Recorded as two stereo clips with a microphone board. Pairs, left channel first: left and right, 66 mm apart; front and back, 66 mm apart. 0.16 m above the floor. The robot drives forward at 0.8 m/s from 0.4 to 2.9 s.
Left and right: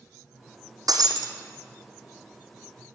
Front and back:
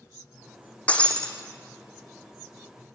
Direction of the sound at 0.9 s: 70° right.